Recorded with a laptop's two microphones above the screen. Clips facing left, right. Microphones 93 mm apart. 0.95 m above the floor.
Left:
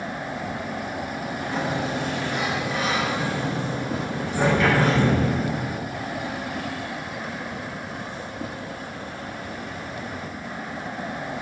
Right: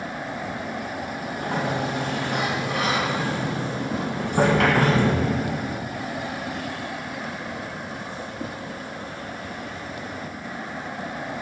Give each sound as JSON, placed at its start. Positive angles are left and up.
{"t": 1.4, "sound": "a sliding door", "side_deg": -65, "distance_m": 2.0}